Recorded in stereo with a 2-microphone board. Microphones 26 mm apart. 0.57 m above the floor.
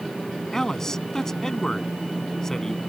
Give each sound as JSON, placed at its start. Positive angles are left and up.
{"t": 0.5, "sound": "a man speaking", "side_deg": 20}